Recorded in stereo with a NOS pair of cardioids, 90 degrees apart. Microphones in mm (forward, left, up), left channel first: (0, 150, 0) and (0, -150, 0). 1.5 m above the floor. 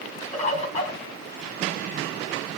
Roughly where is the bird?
Ahead.